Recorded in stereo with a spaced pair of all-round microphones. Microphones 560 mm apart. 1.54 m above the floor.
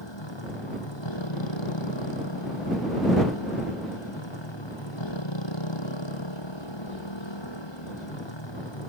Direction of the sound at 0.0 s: 50° left (ahead or behind).